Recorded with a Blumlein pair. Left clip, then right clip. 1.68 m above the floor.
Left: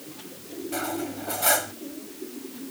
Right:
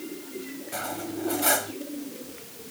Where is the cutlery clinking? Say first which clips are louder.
Left 2 dB; 5° left.